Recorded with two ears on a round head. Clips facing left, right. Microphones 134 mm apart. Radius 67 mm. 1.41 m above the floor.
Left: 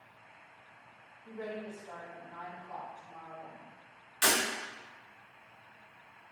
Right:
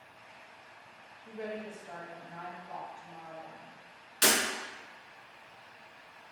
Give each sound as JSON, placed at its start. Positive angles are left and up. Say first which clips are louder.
{"t": 1.2, "sound": "a woman speaking", "louder": "right 1 dB", "side_deg": -15, "distance_m": 1.0}
{"t": 4.2, "sound": "breaking glass", "louder": "right 1 dB", "side_deg": -50, "distance_m": 1.2}